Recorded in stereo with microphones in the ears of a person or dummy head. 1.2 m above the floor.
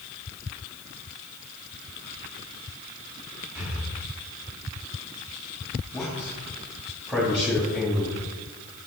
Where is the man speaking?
5° right (ahead or behind), 2 m.